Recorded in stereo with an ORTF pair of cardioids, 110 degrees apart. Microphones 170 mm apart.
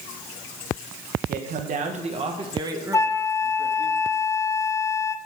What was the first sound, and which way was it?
A man speaking, 60° right.